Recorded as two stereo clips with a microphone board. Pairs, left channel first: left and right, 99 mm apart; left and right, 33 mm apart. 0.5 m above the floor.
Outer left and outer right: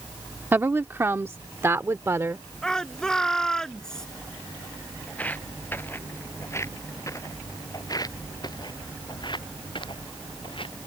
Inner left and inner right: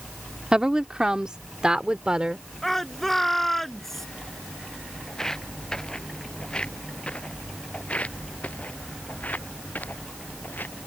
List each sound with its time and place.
0.5 s a woman speaking: 25° right (ahead or behind); by 2.4 s 30° right (ahead or behind)
2.6 s a shout: 5° left (ahead or behind)
5.1 s footsteps: 15° left (ahead or behind); by 10.8 s 60° left (ahead or behind)